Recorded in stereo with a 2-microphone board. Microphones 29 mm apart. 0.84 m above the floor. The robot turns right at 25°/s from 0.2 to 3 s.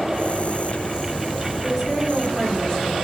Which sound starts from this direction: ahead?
A woman speaking, at 1.6 s.